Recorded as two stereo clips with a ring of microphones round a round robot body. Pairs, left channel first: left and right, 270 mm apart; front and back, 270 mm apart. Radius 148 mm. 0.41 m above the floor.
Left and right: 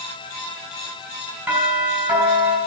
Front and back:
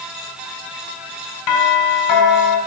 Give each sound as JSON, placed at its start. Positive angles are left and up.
{"t": 1.5, "sound": "a doorbell", "azimuth_deg": -5, "distance_m": 5.0}